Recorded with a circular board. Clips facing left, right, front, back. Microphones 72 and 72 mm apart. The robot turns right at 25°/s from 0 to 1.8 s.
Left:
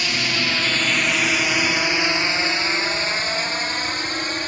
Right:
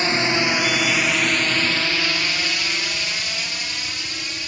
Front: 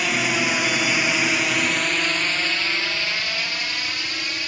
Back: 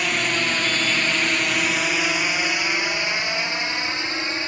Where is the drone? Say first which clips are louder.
Right 4 dB, front 1 dB; 85° right; by 4.5 s 125° left.